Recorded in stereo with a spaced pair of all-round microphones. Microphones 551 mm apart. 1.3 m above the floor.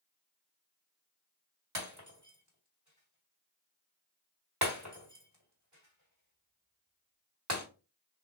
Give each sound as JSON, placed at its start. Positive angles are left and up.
{"t": 1.8, "sound": "breaking glass", "side_deg": -30, "distance_m": 1.3}